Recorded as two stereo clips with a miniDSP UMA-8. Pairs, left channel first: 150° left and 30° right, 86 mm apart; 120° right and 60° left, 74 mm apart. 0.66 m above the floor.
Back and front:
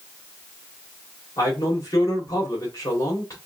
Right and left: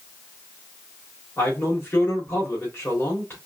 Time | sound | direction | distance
1.4 | a man speaking | 170° right | 2 m